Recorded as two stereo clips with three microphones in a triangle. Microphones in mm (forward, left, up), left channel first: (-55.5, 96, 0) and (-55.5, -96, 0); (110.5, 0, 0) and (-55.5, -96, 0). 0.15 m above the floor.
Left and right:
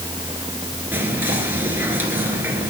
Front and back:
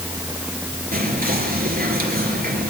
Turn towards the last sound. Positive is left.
turn(degrees=-170)